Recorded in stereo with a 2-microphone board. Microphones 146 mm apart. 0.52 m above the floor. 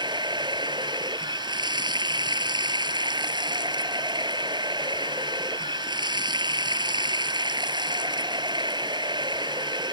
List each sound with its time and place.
0.0 s running water: 30° right (ahead or behind)